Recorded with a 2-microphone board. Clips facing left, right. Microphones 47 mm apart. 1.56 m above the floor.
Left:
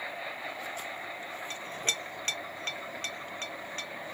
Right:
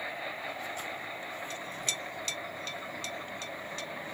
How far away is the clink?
About 0.6 m.